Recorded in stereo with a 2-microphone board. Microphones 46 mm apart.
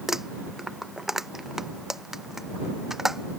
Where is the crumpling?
5° right (ahead or behind).